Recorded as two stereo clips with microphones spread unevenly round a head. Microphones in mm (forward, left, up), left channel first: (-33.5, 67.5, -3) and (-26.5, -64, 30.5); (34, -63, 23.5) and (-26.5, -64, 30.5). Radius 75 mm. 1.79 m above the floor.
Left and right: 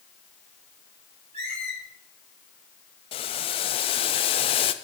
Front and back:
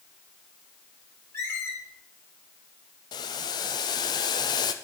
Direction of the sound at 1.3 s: 40° right.